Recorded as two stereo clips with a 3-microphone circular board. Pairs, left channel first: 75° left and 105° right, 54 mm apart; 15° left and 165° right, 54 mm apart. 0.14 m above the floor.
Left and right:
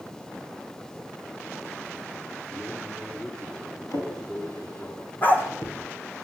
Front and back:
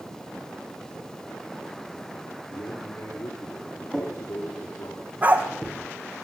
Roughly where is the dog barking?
Behind left.